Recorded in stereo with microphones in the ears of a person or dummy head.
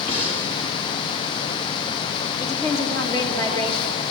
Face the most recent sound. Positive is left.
turn(degrees=25)  # may be behind; listen again after turning